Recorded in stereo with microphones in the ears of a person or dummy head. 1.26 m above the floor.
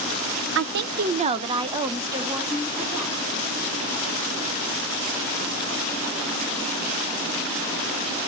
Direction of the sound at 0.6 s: 65° right (ahead or behind).